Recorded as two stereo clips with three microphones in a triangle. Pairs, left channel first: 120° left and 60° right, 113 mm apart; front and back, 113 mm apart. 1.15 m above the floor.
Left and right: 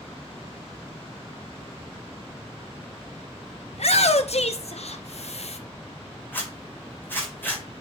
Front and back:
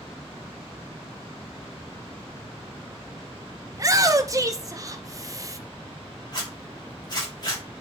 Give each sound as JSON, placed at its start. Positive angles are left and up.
{"t": 3.7, "sound": "a shout", "azimuth_deg": 125, "distance_m": 0.8}
{"t": 6.3, "sound": "a zipper", "azimuth_deg": 50, "distance_m": 3.0}